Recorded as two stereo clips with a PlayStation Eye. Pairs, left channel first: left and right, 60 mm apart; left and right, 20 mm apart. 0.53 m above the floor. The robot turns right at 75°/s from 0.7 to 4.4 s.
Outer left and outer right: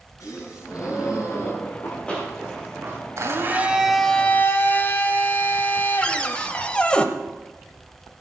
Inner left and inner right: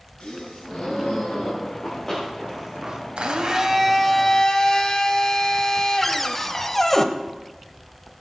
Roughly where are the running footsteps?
Left.